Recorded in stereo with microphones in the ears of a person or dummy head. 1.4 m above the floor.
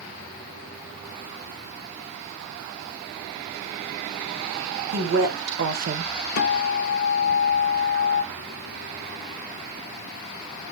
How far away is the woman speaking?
About 1.4 m.